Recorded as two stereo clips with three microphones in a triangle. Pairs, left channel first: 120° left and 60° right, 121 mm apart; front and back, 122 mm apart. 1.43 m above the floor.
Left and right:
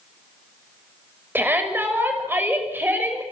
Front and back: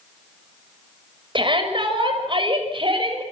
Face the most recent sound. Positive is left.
turn(degrees=-135)